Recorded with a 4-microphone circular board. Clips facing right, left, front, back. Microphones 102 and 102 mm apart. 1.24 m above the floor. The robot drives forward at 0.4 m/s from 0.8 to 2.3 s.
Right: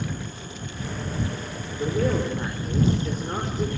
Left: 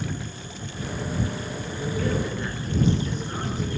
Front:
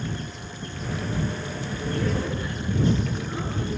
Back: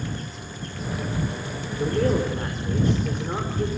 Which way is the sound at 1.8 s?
135° right.